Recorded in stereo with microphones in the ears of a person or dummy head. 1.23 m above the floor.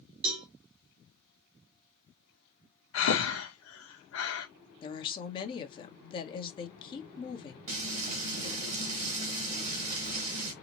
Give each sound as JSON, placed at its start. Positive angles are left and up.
{"t": 0.2, "sound": "a cowbell", "side_deg": -60, "distance_m": 1.2}
{"t": 2.9, "sound": "breathing", "side_deg": 85, "distance_m": 1.0}
{"t": 4.8, "sound": "a woman speaking", "side_deg": 35, "distance_m": 1.0}
{"t": 7.7, "sound": "frying", "side_deg": -50, "distance_m": 1.9}